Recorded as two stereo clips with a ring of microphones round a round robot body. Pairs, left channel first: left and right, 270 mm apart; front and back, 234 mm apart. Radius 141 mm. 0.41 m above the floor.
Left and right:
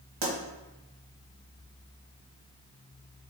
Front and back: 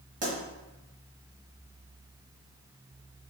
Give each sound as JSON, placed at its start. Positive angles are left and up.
{"t": 0.2, "sound": "a pop", "azimuth_deg": -120, "distance_m": 1.4}